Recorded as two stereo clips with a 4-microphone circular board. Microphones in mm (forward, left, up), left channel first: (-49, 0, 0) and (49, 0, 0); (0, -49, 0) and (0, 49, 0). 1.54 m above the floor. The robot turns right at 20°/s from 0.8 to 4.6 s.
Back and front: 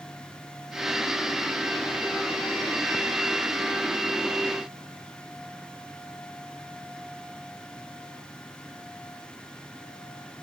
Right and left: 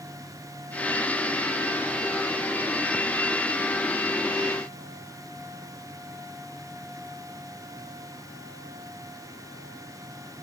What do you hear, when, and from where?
Only background noise.